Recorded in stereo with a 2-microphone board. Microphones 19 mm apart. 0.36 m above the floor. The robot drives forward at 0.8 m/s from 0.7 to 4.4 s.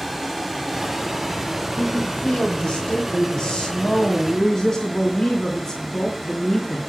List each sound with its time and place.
0.0 s running water: centre (ahead or behind), 2.5 m
1.8 s a woman speaking: 60° left (ahead or behind), 1.7 m; by 6.8 s 35° left (ahead or behind), 2.5 m